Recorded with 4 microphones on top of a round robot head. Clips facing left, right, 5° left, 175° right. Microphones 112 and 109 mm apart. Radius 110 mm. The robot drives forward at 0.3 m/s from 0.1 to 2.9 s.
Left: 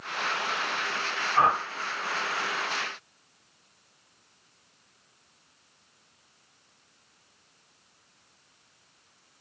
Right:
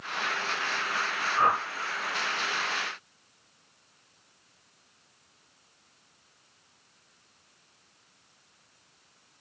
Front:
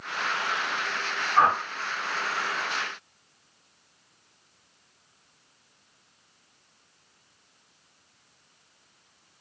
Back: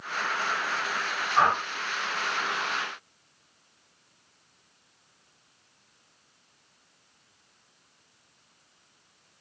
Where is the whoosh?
95° left, 1.2 m; by 1.6 s 100° left, 1.2 m.